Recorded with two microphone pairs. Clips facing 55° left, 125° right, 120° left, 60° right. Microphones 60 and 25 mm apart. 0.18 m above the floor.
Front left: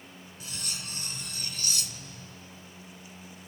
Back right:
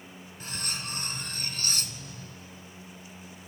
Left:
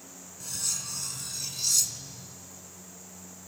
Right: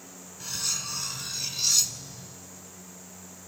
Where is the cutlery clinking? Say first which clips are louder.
Back right 4 dB, right 3 dB; 115° right, 1.0 m.